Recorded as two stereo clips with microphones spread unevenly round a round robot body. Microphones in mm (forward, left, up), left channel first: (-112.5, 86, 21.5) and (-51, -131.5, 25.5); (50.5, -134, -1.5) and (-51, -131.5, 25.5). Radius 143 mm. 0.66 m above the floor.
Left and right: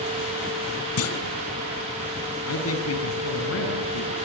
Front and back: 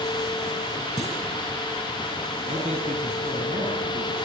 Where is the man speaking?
120° left, 6.5 m.